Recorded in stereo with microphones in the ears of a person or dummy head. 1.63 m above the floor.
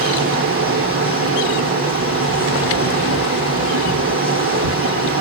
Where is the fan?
45° right (ahead or behind), 0.9 m.